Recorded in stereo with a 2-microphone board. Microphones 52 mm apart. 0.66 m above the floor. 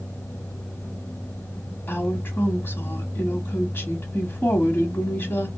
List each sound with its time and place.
1.9 s a woman speaking: 45° left (ahead or behind), 1.1 m